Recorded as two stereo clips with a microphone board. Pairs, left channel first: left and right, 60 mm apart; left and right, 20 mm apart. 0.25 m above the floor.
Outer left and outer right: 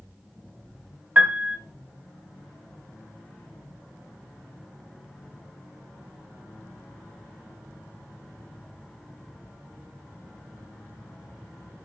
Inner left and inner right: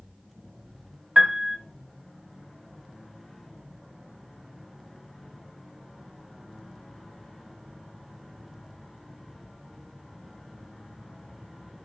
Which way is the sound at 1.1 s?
30° right (ahead or behind).